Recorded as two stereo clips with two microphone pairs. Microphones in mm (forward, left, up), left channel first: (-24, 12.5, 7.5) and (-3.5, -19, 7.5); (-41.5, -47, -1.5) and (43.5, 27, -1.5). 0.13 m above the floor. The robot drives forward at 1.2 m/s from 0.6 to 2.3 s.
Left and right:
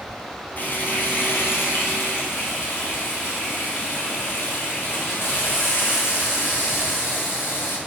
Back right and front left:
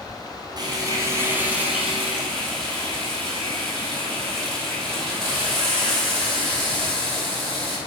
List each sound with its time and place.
0.6 s frying: 85° left, 2 m; by 7.8 s 135° left, 3 m